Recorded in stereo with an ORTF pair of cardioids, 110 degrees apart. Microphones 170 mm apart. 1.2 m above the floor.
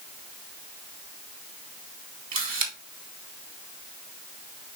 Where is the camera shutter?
50° right, 3 m.